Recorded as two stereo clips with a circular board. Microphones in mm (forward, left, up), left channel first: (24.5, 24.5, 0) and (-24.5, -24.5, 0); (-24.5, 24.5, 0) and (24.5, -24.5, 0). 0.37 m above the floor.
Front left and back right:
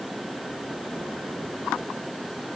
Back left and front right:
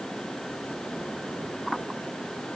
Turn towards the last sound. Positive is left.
No sound to turn to.